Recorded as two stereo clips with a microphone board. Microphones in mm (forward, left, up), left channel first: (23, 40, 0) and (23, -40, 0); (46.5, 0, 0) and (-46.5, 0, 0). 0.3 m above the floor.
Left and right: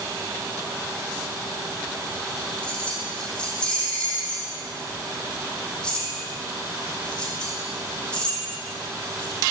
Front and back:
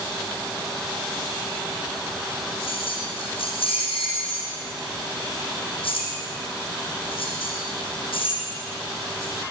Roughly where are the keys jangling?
Ahead.